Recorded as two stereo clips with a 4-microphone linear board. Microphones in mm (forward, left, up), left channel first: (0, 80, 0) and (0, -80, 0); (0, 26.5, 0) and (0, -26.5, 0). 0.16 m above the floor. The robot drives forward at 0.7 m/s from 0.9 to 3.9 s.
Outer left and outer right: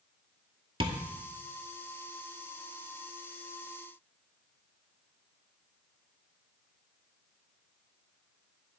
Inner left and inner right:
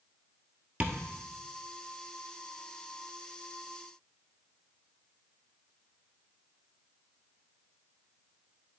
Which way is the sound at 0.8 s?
30° right (ahead or behind).